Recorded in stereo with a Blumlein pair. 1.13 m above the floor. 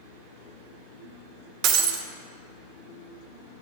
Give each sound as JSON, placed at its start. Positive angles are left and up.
{"t": 1.6, "sound": "breaking glass", "azimuth_deg": -35, "distance_m": 0.8}